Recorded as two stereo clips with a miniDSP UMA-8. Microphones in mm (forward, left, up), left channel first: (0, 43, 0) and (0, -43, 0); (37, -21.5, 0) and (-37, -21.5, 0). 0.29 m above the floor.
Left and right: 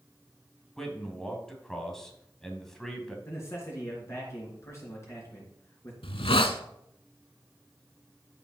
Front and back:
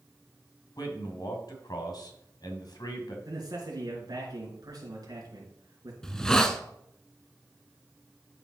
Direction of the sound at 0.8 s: 5° left.